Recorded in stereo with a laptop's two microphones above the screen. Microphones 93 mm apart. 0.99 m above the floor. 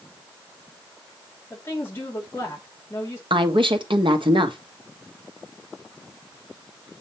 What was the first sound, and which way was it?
A woman speaking, 25° left (ahead or behind).